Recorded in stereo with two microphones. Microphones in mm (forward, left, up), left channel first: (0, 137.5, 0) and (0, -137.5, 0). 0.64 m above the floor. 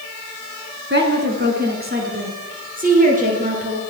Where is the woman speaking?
40° right (ahead or behind), 7 m; by 3.8 s 25° right (ahead or behind), 10.5 m.